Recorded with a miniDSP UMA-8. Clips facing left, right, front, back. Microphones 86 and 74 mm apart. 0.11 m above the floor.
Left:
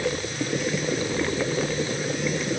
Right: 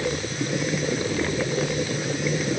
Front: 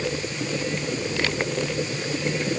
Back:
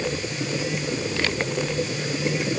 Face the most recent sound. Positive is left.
No sound to turn to.